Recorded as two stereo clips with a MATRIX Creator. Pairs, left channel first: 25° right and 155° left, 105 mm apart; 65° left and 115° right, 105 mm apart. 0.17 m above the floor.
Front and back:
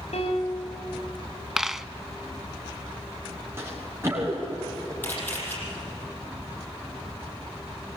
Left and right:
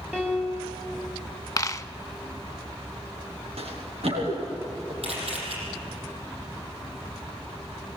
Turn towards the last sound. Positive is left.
turn(degrees=-95)